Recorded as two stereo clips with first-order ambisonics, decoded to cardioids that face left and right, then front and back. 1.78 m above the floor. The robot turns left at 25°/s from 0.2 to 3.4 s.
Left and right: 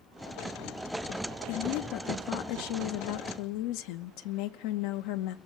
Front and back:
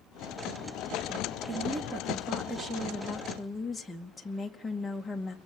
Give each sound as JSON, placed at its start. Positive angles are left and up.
{"t": 1.5, "sound": "a woman speaking", "azimuth_deg": 130, "distance_m": 2.5}